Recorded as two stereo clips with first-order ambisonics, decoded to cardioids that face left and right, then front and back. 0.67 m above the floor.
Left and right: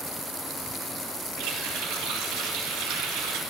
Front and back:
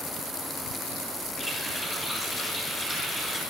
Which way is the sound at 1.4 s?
95° right.